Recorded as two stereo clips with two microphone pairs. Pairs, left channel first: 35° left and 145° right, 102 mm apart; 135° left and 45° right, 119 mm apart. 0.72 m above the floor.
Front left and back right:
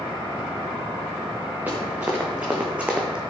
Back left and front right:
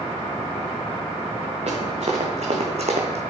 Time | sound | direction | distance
1.7 | running footsteps | 70° right | 4 m